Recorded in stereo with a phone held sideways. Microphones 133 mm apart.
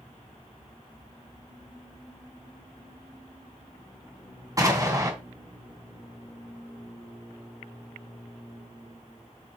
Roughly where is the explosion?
Right.